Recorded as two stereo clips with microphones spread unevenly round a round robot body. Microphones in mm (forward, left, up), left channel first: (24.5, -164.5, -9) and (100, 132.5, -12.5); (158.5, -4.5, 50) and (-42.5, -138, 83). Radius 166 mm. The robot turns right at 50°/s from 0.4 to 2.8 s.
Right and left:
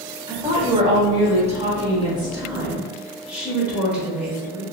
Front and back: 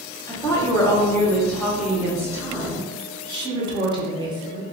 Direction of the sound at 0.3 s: 35° left.